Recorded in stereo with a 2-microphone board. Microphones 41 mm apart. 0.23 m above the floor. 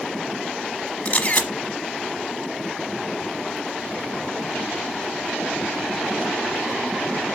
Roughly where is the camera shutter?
Left.